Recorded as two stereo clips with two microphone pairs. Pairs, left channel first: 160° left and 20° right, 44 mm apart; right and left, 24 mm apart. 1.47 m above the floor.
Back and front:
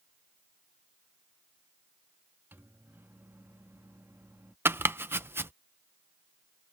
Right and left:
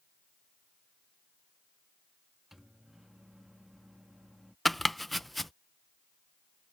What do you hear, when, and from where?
2.5 s a microwave: 10° left
4.7 s chopping: 5° right